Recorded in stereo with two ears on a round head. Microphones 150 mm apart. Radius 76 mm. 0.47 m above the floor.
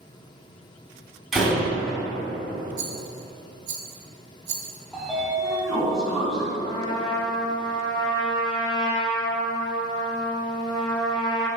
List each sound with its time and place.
1.3 s a door slam: centre (ahead or behind), 2.0 m
2.8 s a rattle: 35° right (ahead or behind), 1.0 m
4.9 s a sliding door: centre (ahead or behind), 1.4 m
6.6 s a trumpet: 25° left (ahead or behind), 1.6 m